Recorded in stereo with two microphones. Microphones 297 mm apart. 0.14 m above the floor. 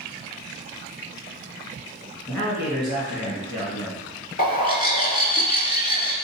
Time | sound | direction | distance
2.3 | a man speaking | 20° left (ahead or behind) | 1.4 m
4.4 | a bird | 30° left (ahead or behind) | 0.5 m